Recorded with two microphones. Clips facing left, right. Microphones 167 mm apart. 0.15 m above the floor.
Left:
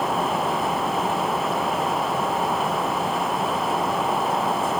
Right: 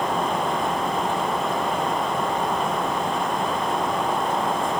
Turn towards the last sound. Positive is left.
No sound to turn to.